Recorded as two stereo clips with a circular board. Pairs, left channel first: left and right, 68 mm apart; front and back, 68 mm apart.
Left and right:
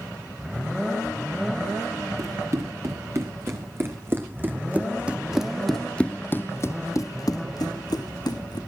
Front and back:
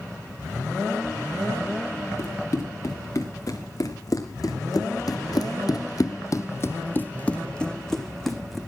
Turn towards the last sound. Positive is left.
turn(degrees=90)